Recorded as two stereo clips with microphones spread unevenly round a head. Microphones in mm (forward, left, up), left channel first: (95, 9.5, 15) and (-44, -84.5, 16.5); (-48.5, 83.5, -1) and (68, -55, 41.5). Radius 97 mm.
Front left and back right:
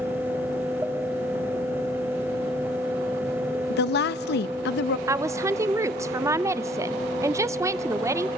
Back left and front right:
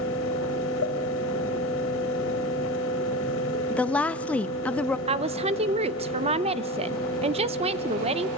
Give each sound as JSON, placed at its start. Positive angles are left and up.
{"t": 0.0, "sound": "a fan", "azimuth_deg": 135, "distance_m": 3.0}
{"t": 3.7, "sound": "a woman speaking", "azimuth_deg": 50, "distance_m": 0.6}
{"t": 5.1, "sound": "a woman speaking", "azimuth_deg": -95, "distance_m": 0.6}